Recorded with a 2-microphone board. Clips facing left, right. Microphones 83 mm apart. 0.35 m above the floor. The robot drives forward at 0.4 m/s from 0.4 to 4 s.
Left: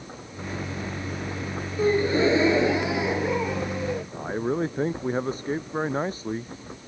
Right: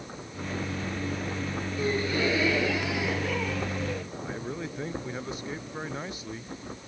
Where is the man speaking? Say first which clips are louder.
Left 8 dB; 35° left (ahead or behind).